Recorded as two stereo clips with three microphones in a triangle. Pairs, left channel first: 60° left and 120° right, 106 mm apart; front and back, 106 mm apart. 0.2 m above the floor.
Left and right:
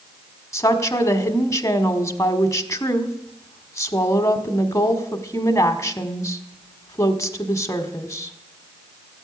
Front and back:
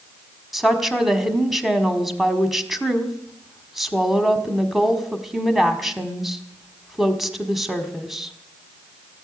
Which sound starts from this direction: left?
A woman speaking, at 0.5 s.